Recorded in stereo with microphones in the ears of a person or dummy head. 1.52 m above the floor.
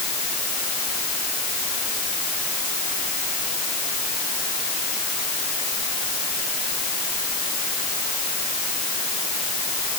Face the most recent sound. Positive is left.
No sound to turn to.